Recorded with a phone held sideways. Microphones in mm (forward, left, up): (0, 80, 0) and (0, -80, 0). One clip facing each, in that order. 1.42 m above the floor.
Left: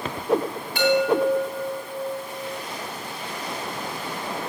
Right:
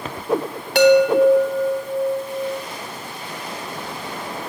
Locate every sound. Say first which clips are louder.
0.8 s a chime: right 7 dB; 80° right, 0.9 m